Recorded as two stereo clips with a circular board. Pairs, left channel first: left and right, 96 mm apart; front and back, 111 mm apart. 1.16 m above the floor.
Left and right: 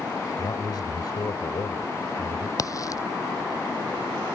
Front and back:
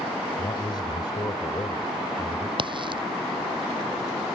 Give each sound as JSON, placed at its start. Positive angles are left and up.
{"t": 0.4, "sound": "a man speaking", "azimuth_deg": 45}
{"t": 2.6, "sound": "a crack", "azimuth_deg": 140}